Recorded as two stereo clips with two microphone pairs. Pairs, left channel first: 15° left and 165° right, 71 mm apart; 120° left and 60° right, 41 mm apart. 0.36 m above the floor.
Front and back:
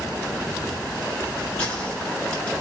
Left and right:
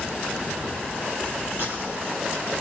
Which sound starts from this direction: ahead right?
A gunshot, at 1.6 s.